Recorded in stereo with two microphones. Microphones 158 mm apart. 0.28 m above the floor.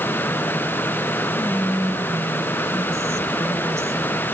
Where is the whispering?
20° right (ahead or behind), 0.9 m.